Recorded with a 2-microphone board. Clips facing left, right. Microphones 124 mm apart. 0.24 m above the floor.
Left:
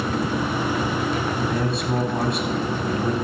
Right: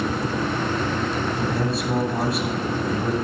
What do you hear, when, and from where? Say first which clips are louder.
1.3 s a man speaking: even; centre (ahead or behind), 1.5 m